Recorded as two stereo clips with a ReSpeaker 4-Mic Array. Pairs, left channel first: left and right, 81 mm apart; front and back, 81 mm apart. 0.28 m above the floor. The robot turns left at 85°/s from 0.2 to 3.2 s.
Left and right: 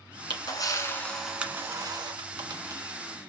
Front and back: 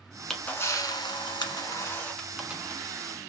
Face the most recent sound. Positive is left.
turn(degrees=-165)